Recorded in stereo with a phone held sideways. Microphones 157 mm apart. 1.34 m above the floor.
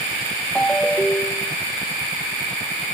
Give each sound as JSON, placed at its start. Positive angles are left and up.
{"t": 0.6, "sound": "a ringtone", "side_deg": 5, "distance_m": 0.8}